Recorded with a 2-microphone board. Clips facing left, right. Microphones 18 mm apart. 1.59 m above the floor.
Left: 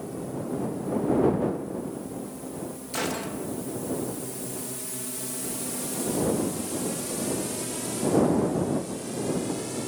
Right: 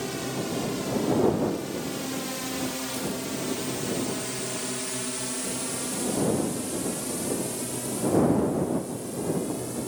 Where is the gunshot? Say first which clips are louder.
Left 1 dB; 65° left (ahead or behind).